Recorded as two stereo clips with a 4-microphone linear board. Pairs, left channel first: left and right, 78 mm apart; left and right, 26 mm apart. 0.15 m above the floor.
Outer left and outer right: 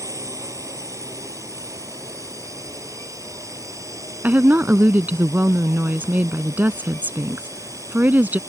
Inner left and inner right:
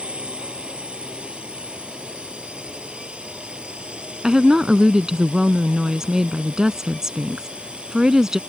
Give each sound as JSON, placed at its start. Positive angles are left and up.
{"t": 0.0, "sound": "a drone", "side_deg": -45}
{"t": 4.2, "sound": "a woman speaking", "side_deg": -25}